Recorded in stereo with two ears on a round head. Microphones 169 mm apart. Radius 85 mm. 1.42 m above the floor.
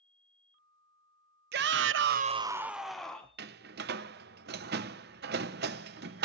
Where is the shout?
50° right (ahead or behind), 0.8 m; by 3.3 s 5° left (ahead or behind), 1.5 m.